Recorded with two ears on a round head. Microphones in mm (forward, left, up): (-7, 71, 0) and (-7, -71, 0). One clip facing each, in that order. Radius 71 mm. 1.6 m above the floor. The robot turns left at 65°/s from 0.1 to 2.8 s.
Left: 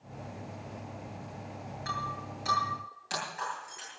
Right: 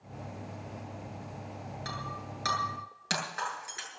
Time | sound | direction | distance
1.9 | breaking glass | 40° right (ahead or behind) | 8 m